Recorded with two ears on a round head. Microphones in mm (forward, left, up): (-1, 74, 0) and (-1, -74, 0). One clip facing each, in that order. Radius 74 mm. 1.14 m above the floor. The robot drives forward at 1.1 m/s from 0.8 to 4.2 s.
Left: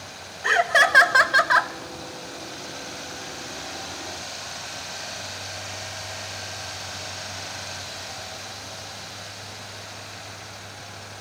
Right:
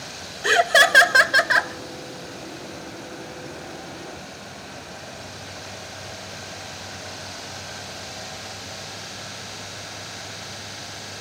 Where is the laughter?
40° right (ahead or behind), 1.2 m; by 1.7 s 20° right (ahead or behind), 2 m.